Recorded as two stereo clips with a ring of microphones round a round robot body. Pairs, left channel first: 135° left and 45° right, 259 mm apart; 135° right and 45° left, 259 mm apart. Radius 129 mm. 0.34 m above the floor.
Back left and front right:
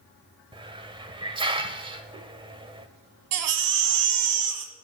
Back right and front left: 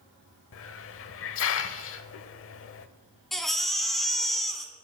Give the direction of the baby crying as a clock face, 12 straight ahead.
2 o'clock.